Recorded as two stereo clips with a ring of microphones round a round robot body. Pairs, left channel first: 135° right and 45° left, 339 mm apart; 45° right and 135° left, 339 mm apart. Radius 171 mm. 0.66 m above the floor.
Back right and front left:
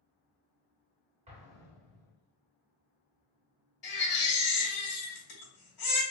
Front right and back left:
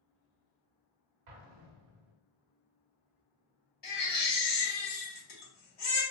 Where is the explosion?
115° left, 0.7 m.